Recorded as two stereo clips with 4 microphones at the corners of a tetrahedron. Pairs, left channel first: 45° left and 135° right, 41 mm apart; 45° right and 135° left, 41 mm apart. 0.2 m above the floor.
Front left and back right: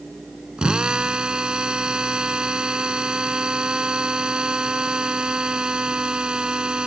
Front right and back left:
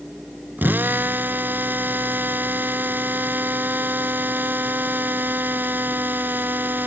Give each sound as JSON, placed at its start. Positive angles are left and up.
{"t": 0.6, "sound": "a drill", "azimuth_deg": 160}